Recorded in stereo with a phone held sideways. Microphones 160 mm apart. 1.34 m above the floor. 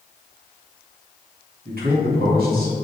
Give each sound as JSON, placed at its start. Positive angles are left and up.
{"t": 1.6, "sound": "a man speaking", "side_deg": -85, "distance_m": 2.5}